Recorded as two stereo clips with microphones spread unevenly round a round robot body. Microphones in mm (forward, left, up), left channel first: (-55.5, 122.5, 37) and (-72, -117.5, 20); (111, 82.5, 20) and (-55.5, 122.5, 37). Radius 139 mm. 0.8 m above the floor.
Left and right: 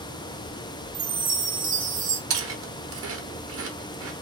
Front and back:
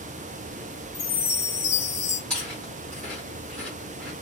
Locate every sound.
0.9 s a chime: 50° right, 0.9 m
2.3 s chewing: 95° right, 1.0 m